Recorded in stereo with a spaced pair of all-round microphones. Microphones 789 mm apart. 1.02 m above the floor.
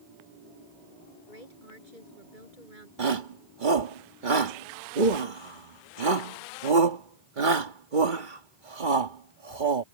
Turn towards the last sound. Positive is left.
turn(degrees=-80)